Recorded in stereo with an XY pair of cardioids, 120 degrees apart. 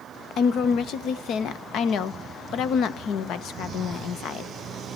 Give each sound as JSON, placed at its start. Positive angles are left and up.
{"t": 0.4, "sound": "a woman speaking", "azimuth_deg": 65, "distance_m": 1.0}